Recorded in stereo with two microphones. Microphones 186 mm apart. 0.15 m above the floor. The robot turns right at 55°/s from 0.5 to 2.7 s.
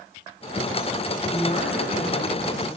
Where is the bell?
No bell in this recording.